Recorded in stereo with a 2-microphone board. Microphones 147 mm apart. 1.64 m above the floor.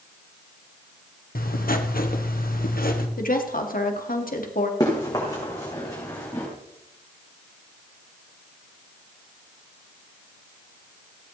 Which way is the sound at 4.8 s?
25° left (ahead or behind).